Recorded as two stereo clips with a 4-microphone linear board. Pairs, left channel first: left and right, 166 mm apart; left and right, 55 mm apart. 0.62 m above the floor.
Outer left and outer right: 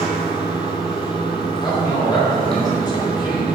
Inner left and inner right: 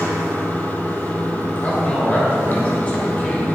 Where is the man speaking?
25° left (ahead or behind), 3 m.